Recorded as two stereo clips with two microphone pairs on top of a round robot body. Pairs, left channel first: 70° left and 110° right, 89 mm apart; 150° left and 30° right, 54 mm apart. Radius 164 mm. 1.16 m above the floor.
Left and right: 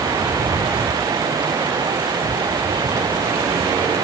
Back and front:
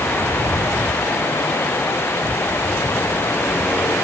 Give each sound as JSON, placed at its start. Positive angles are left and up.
{"t": 0.0, "sound": "running water", "azimuth_deg": -165}